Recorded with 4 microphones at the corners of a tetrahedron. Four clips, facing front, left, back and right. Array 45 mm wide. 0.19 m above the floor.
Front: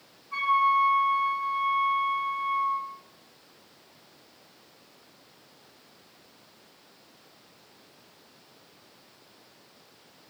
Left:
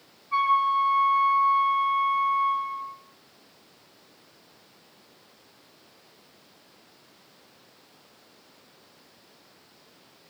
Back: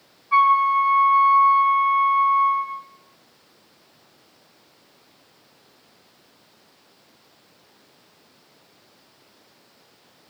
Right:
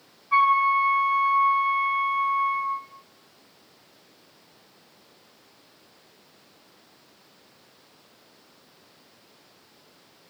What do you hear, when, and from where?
0.3 s a flute: 145° right, 6 m